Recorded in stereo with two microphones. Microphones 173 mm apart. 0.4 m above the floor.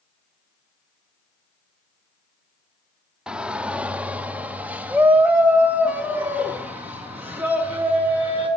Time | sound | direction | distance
3.3 | a shout | 5° right (ahead or behind) | 0.9 m